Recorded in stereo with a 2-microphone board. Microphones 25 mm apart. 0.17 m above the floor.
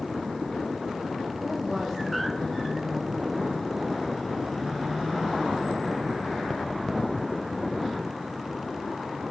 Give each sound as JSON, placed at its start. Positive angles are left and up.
{"t": 1.4, "sound": "a woman speaking", "side_deg": 15, "distance_m": 9.0}